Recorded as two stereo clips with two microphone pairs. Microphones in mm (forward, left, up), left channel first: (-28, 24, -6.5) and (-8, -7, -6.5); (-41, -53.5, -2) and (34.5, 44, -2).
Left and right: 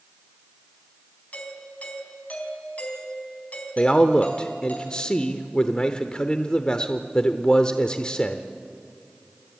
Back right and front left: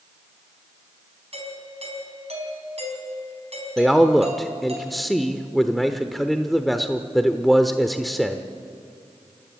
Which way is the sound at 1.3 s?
80° left.